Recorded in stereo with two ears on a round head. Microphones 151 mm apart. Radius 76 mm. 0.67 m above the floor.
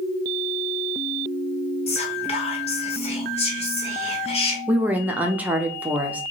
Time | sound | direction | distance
1.9 | whispering | 35° left (ahead or behind) | 1.1 m
4.7 | a woman speaking | 10° right (ahead or behind) | 0.5 m